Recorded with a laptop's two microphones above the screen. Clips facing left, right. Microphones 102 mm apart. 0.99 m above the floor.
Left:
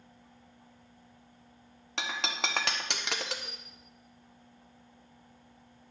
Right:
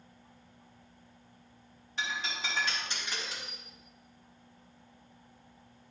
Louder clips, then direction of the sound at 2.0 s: Left 2 dB; 75° left (ahead or behind).